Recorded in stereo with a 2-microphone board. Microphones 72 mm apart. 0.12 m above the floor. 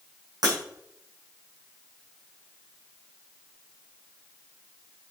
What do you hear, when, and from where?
0.4 s breaking glass: 65° right (ahead or behind), 5 m